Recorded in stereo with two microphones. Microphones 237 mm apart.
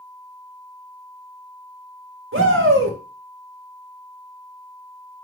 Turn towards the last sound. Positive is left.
turn(degrees=-60)  # may be behind; listen again after turning